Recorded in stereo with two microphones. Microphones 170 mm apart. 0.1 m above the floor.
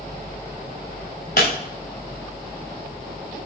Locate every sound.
1.4 s breaking glass: 65° left (ahead or behind), 7 m